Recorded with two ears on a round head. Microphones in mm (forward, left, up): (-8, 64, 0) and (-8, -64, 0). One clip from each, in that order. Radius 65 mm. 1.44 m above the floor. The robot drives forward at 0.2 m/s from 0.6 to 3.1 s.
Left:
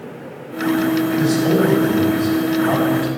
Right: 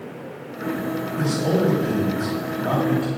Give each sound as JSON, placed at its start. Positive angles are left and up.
{"t": 1.2, "sound": "a man speaking", "side_deg": -15, "distance_m": 4.0}